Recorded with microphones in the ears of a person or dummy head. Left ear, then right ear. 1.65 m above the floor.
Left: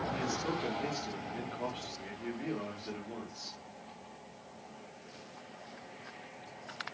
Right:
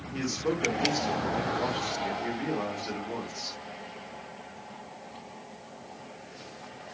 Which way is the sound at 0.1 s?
15° right (ahead or behind).